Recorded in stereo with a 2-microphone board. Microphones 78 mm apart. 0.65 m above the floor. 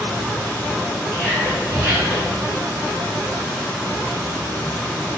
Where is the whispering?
10° left (ahead or behind), 2.5 m.